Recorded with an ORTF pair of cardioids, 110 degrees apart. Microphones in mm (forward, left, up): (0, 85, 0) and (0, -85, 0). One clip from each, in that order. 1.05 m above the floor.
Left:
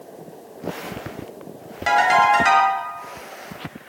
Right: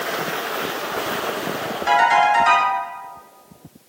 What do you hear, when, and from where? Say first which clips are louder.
1.9 s a ringtone: even; 70° left, 1.1 m